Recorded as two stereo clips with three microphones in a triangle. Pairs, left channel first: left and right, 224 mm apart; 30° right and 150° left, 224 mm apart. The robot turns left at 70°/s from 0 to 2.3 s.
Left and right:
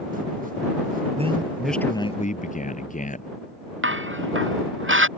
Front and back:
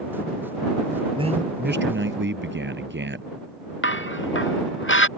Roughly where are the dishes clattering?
Ahead right.